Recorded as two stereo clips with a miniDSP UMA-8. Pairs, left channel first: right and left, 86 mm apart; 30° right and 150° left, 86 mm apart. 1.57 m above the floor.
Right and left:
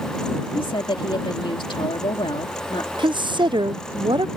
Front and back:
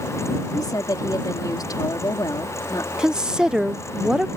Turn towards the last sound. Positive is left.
turn(degrees=70)